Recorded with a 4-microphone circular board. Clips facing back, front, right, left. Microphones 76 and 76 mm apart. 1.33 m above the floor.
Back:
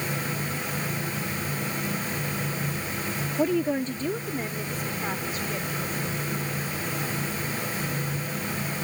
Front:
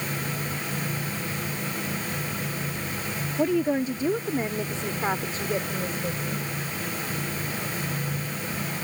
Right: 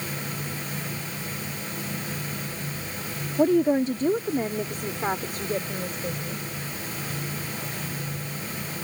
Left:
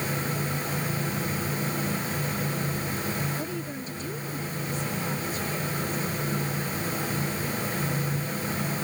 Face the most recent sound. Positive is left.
turn(degrees=-45)